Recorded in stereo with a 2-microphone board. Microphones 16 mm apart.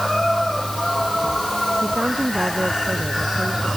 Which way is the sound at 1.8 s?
55° right (ahead or behind).